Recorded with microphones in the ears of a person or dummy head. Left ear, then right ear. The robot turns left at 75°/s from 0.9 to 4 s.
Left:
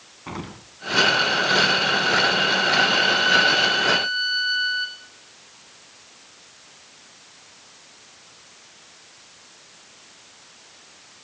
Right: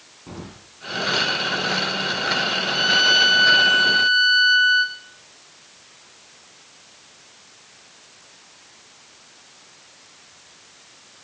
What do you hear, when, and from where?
0.3 s an explosion: 50° left (ahead or behind), 1.9 m
2.7 s a violin: 45° right, 1.4 m; by 5.0 s 140° right, 1.4 m